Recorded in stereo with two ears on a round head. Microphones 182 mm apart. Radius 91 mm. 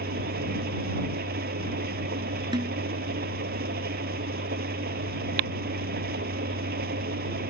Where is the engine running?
50° right (ahead or behind).